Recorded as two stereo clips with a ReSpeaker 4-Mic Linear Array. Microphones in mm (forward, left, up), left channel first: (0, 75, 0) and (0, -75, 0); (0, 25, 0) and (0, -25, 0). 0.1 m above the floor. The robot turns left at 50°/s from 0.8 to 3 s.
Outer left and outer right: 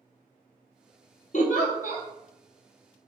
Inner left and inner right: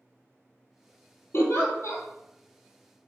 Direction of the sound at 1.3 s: 115° left.